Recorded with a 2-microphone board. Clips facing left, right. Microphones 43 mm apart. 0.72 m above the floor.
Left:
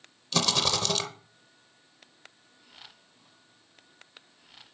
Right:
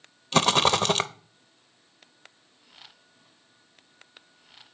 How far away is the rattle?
About 0.5 m.